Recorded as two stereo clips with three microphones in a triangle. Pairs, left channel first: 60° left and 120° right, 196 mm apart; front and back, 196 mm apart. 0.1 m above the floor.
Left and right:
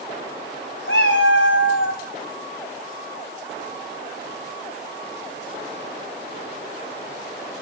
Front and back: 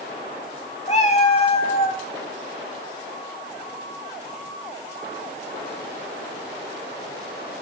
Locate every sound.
0.9 s a cat meowing: 55° left, 3 m